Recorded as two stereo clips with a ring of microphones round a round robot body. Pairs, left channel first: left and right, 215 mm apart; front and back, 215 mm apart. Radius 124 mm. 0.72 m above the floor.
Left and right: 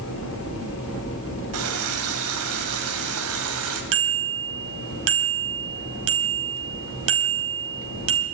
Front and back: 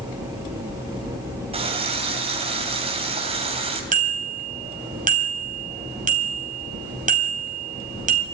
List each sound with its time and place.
1.5 s a running tap: 115° right, 3 m
3.9 s a bicycle bell: 125° right, 3.5 m